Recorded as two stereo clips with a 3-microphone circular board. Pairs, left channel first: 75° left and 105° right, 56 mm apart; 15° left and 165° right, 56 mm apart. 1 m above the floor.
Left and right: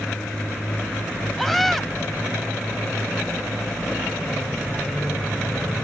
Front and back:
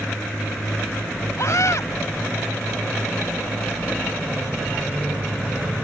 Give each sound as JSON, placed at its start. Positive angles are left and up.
{"t": 1.4, "sound": "a scream", "azimuth_deg": -15}